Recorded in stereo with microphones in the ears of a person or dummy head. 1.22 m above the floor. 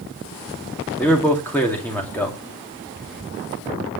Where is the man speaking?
10° left (ahead or behind), 2.5 m.